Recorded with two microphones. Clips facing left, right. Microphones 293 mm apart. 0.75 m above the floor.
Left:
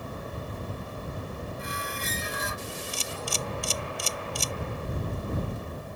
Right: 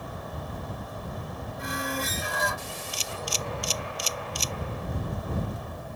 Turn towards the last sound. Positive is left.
turn(degrees=60)  # may be behind; listen again after turning